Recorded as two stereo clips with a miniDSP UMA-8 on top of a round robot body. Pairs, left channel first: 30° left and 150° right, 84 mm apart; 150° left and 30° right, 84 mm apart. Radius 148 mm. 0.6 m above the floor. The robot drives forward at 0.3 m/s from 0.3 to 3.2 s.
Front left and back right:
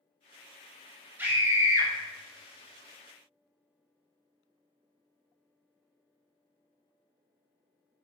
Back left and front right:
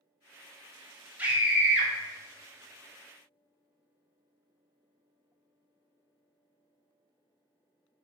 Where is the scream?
90° right, 1.5 m; by 1.9 s 105° right, 1.5 m.